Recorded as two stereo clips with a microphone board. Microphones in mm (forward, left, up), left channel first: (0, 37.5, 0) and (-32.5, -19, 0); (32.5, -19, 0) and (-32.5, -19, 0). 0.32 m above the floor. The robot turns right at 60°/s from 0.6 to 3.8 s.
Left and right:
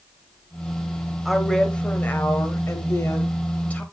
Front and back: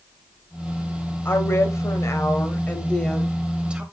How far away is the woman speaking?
About 1.2 m.